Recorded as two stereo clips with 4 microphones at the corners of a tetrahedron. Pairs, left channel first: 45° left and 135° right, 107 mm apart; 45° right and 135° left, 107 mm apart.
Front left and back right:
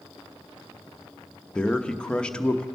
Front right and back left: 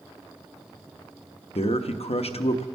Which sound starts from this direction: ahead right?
A man speaking, at 1.6 s.